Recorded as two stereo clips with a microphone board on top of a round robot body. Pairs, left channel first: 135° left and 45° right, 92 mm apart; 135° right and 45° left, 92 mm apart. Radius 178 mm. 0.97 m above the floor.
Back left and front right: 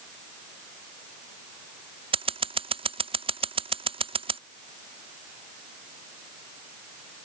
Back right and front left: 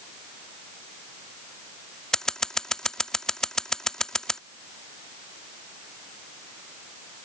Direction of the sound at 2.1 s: 50° right.